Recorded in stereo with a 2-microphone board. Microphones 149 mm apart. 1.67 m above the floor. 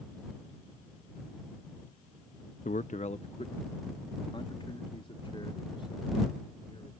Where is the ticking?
No ticking in this recording.